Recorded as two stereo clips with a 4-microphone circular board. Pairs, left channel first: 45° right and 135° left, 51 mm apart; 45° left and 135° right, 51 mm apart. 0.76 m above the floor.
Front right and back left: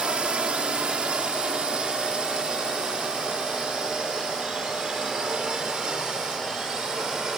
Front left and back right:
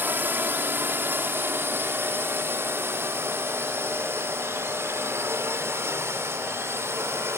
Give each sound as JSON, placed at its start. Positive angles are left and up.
{"t": 0.0, "sound": "a drone", "azimuth_deg": -165}